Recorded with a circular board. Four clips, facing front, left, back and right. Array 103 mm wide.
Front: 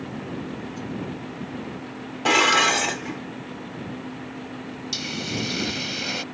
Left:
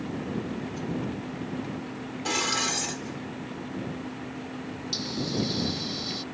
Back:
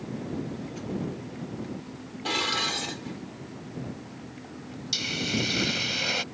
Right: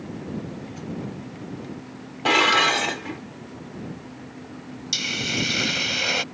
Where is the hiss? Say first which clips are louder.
Even, back 1 dB; 90° right.